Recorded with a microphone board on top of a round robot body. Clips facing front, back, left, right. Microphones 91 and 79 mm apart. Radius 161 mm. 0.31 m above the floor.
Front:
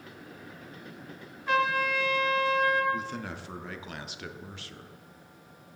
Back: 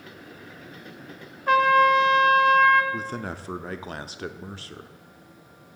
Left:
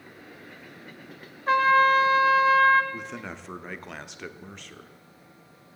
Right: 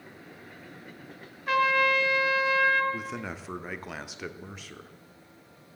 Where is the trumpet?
145° left, 1.6 m.